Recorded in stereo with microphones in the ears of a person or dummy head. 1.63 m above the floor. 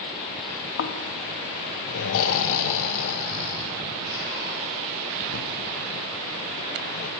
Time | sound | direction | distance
0.8 | snoring | 70° left (ahead or behind) | 0.8 m